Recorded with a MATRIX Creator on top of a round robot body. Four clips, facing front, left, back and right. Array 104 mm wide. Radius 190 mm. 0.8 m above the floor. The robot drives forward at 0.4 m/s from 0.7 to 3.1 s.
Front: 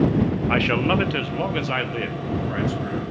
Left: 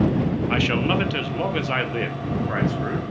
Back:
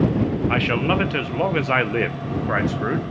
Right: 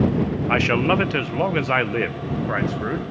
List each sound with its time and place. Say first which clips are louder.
0.5 s a man speaking: right 5 dB, even; 90° right, 1.0 m; by 3.0 s 160° right, 1.3 m